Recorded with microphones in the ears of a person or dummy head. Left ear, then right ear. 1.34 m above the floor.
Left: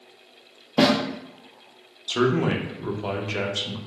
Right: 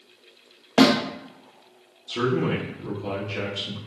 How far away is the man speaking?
About 0.8 m.